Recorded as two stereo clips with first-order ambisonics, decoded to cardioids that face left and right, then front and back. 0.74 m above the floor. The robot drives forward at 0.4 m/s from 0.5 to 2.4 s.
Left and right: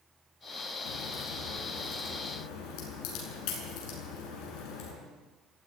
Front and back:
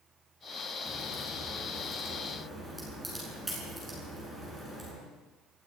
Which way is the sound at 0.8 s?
90° left.